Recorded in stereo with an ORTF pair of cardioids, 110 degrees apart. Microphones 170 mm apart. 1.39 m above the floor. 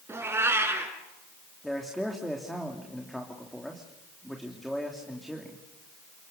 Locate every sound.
0.1 s a cat meowing: 15° right, 5 m
1.6 s a man speaking: straight ahead, 3 m